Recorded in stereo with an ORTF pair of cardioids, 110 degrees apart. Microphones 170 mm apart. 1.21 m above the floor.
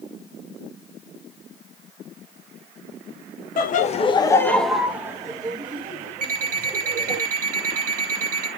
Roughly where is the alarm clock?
Ahead right.